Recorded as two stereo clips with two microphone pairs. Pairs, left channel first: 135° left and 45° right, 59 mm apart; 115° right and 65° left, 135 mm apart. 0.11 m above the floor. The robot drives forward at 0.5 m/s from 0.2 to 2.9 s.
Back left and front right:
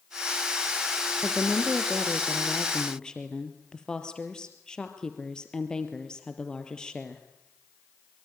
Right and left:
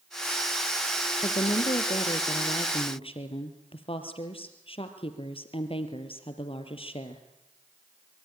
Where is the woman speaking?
135° right, 2 m; by 7.2 s 150° right, 2.5 m.